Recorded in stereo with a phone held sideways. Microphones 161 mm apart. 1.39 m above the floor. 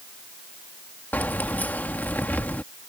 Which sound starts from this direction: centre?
Keys jangling, at 1.1 s.